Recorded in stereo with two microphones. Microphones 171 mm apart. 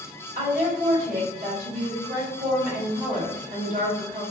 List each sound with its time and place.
0.3 s a woman speaking: 55° right (ahead or behind), 2.0 m